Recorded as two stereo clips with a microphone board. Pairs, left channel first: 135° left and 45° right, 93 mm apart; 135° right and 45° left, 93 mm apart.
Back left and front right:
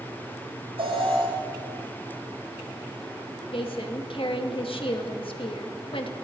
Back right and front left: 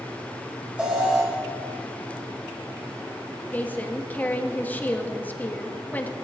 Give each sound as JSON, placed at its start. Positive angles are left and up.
{"t": 0.8, "sound": "an alarm", "azimuth_deg": -30, "distance_m": 9.5}
{"t": 3.5, "sound": "a woman speaking", "azimuth_deg": 155, "distance_m": 2.5}